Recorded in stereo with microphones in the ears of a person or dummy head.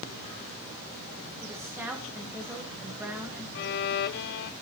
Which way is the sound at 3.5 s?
55° left (ahead or behind).